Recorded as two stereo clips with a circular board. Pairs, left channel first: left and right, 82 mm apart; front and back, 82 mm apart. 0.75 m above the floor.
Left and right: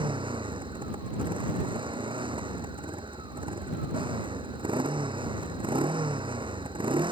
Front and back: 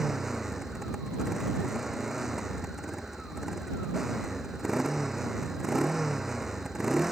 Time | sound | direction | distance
0.0 | a motorcycle | 95° right | ?